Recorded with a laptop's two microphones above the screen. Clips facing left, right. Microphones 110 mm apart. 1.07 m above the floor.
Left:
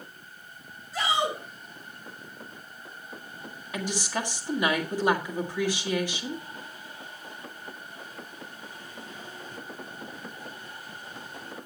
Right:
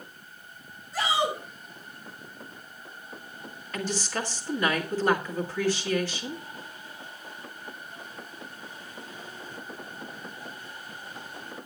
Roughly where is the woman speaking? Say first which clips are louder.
Even; centre.